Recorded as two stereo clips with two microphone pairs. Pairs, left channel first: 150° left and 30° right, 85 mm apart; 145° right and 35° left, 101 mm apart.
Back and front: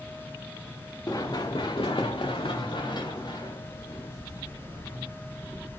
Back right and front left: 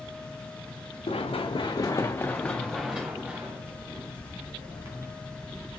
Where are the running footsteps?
165° right, 0.9 m; by 5.1 s 95° left, 2 m.